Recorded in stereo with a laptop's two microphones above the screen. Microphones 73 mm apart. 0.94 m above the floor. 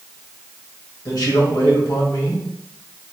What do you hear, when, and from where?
1.1 s a man speaking: 70° left (ahead or behind), 1.5 m